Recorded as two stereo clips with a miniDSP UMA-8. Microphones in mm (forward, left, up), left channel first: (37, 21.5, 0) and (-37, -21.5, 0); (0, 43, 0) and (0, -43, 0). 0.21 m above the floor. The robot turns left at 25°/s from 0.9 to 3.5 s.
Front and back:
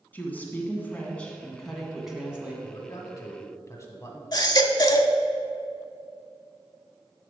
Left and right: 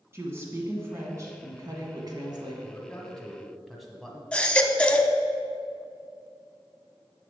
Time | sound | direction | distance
0.1 | a woman speaking | 35° right | 1.6 m
2.6 | a man speaking | 25° left | 1.2 m
4.3 | a baby crying | 20° left | 0.6 m